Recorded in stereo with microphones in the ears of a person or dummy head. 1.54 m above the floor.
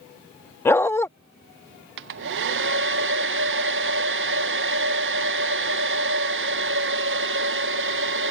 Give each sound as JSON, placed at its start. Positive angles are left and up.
{"t": 0.7, "sound": "a dog barking", "side_deg": 15}
{"t": 2.0, "sound": "a hair dryer", "side_deg": -65}